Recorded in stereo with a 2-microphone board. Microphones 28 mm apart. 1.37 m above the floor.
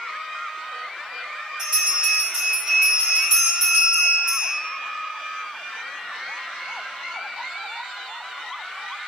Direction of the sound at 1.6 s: 20° right (ahead or behind).